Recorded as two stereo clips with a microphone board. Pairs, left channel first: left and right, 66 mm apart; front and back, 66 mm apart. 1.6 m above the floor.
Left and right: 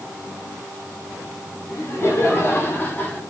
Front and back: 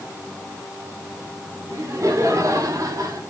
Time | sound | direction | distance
1.7 | laughter | 140° left | 6.5 m